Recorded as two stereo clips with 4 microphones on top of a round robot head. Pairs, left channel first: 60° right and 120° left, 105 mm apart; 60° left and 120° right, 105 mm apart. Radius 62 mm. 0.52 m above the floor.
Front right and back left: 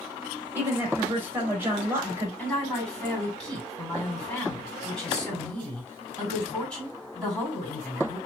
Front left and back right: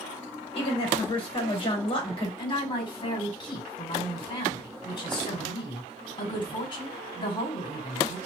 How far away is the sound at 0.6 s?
About 1.9 m.